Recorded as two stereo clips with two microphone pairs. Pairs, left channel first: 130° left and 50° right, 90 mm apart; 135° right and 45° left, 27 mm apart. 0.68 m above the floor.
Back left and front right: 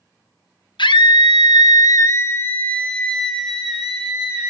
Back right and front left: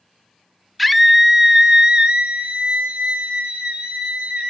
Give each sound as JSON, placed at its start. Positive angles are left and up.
{"t": 0.8, "sound": "a scream", "azimuth_deg": 135, "distance_m": 0.9}